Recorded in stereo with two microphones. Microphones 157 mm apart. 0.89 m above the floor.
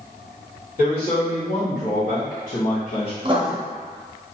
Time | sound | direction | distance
0.8 | a man speaking | 55° left (ahead or behind) | 1.6 m
3.2 | writing | 35° right (ahead or behind) | 0.6 m